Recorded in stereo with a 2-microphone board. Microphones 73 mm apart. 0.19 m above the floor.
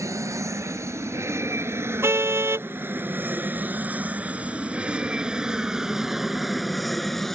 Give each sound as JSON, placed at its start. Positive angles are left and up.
{"t": 0.0, "sound": "an aircraft", "side_deg": -45}
{"t": 2.0, "sound": "a car horn", "side_deg": -35}